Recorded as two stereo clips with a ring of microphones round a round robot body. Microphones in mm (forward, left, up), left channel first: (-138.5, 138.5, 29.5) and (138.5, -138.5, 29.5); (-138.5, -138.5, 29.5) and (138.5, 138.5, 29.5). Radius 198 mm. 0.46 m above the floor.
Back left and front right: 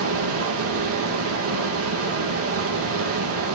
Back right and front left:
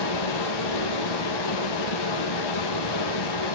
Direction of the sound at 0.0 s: 105° right.